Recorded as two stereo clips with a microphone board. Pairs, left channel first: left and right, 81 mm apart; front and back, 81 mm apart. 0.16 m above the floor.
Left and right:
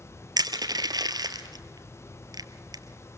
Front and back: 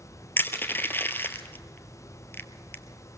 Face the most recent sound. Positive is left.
turn(degrees=-60)